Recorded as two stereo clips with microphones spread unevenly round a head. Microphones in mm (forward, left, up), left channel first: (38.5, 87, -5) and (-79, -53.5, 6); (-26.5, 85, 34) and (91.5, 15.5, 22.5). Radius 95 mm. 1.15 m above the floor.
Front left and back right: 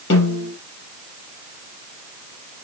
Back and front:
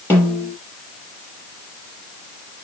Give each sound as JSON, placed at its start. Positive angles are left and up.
{"t": 0.1, "sound": "a snare drum", "azimuth_deg": 80, "distance_m": 4.5}